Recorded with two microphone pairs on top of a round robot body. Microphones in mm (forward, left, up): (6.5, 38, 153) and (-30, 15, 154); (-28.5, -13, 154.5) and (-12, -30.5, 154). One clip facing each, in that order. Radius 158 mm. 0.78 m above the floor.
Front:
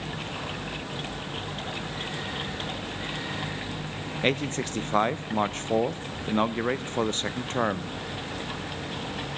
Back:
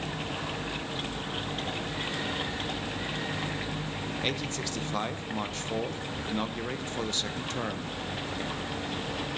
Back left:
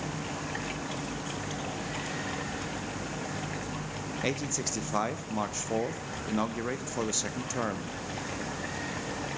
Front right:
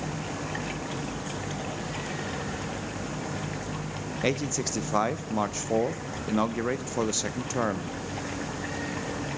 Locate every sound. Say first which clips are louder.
4.2 s a man speaking: front 9 dB, front right 5 dB; 25° left, 0.6 m